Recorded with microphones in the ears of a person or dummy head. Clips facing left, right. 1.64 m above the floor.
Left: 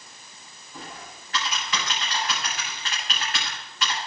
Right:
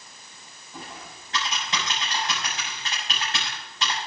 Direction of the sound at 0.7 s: 25° right (ahead or behind).